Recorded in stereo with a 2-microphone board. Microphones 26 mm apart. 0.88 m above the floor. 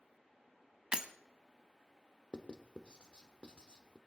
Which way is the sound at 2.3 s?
40° left (ahead or behind).